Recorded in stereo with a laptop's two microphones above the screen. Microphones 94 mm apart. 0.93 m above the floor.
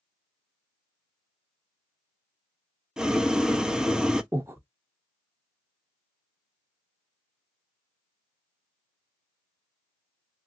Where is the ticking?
No ticking in this recording.